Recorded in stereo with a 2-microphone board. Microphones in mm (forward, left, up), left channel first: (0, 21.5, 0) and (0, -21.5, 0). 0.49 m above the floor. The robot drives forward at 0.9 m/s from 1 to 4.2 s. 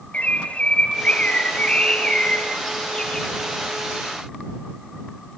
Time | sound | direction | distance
0.1 | a bird | 30° left (ahead or behind) | 2 m